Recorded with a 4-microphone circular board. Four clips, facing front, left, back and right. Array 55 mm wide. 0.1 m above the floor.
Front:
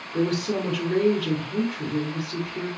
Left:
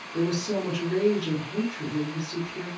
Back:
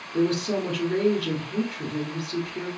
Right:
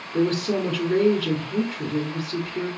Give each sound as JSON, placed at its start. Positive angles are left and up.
{"t": 0.1, "sound": "a woman speaking", "azimuth_deg": -100, "distance_m": 1.3}